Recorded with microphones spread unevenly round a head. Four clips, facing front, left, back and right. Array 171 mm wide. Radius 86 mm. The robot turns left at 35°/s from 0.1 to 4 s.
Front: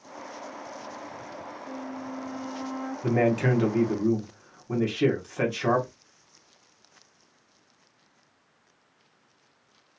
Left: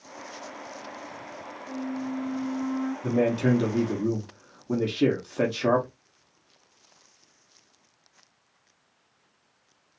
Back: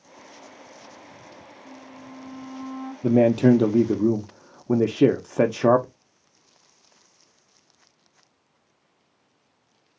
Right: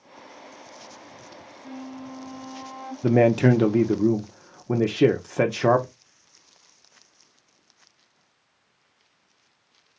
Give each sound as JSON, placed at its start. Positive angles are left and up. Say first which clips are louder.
{"t": 1.6, "sound": "a flute", "louder": "left 5 dB, front 7 dB", "azimuth_deg": -95, "distance_m": 1.7}
{"t": 3.0, "sound": "a man speaking", "louder": "right 7 dB, back 7 dB", "azimuth_deg": -120, "distance_m": 0.7}